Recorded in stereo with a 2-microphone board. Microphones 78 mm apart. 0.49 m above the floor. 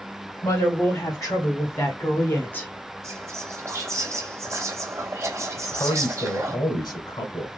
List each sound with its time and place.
0.4 s a woman speaking: 45° left (ahead or behind), 3 m; by 2.7 s 20° left (ahead or behind), 1.2 m
3.0 s whispering: 40° right (ahead or behind), 1.9 m
5.6 s a man speaking: 65° left (ahead or behind), 2.5 m